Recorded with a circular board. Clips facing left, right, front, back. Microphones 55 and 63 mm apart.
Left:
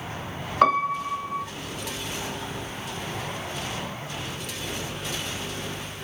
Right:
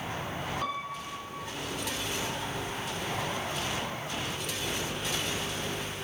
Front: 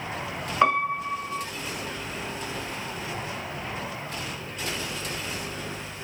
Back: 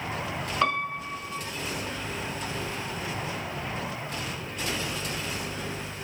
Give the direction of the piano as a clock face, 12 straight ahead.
10 o'clock.